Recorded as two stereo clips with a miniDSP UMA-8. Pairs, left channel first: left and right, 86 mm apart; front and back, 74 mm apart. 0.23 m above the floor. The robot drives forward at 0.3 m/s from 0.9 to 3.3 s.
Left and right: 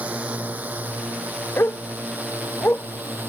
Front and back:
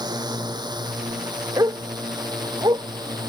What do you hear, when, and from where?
0.0 s a drone: 165° right; by 3.3 s 160° right
1.6 s a dog barking: 150° left; by 2.9 s 155° left